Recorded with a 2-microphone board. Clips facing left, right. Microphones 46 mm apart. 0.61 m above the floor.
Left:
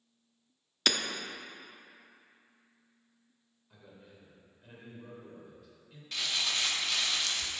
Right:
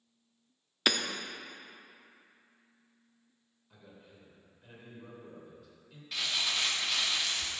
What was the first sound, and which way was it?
Hammering, 10° right (ahead or behind).